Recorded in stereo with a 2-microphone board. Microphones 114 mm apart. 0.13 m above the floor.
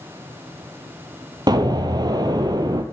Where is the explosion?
40° right (ahead or behind), 0.5 m.